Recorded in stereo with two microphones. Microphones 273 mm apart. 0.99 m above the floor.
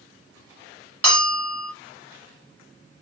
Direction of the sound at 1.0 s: 60° right (ahead or behind).